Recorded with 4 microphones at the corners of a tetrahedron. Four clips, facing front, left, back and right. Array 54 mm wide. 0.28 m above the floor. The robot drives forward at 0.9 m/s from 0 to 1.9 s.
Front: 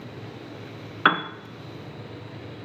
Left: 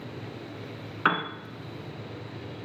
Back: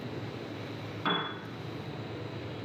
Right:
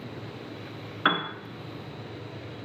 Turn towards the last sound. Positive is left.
turn(degrees=175)